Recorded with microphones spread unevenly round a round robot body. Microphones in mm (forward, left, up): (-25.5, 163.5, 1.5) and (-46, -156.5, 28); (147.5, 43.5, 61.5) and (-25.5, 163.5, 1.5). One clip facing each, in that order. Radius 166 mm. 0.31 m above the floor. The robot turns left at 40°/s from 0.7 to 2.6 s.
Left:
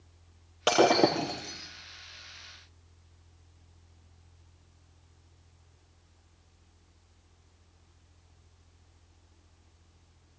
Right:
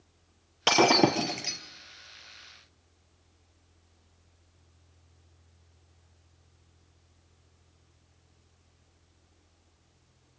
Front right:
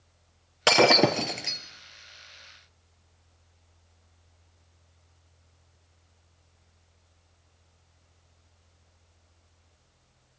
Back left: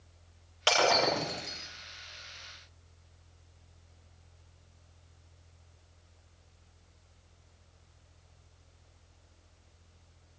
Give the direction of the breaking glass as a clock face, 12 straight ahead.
1 o'clock.